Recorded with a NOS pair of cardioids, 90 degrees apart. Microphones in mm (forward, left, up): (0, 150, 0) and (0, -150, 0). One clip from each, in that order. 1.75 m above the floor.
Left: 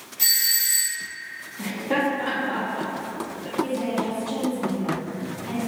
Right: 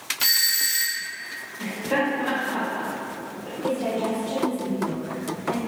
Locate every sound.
0.2 s a doorbell: 65° left, 1.3 m
1.6 s laughter: 65° left, 0.8 m
3.6 s a woman speaking: 65° left, 1.5 m